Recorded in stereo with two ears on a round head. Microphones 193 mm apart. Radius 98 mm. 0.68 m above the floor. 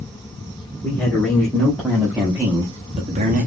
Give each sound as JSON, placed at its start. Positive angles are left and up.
{"t": 0.8, "sound": "a man speaking", "side_deg": 5, "distance_m": 1.7}